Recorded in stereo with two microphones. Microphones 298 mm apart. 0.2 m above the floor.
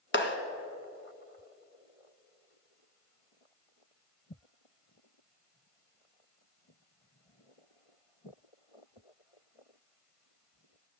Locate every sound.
0.1 s a clap: 40° left (ahead or behind), 1.3 m